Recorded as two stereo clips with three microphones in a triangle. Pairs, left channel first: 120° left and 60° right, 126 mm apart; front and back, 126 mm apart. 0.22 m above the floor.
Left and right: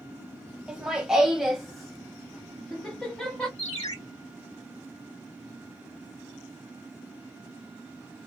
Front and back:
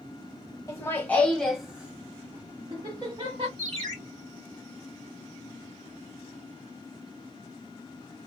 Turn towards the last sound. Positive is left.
turn(degrees=145)